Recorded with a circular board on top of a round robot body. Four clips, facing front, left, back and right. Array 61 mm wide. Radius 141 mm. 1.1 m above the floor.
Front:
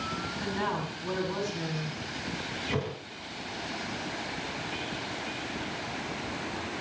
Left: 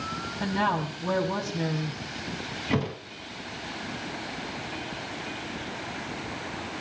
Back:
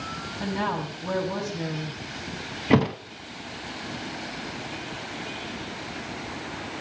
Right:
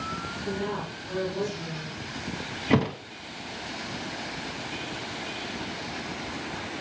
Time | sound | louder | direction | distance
0.4 | a woman speaking | left 7 dB, back 5 dB | 115° left | 7.5 m
2.7 | a thud | right 5 dB, back 13 dB | 160° right | 1.8 m